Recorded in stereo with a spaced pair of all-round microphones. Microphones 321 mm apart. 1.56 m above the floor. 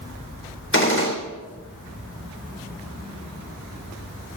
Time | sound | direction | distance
0.7 | a gunshot | 40° left (ahead or behind) | 4 m